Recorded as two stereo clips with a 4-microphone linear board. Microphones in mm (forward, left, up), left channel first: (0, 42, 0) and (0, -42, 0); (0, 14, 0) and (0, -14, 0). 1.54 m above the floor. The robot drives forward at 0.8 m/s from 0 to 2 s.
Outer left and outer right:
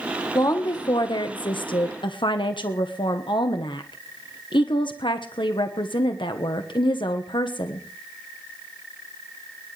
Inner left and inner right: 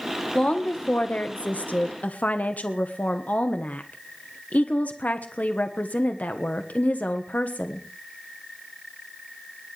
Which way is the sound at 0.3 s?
50° left (ahead or behind).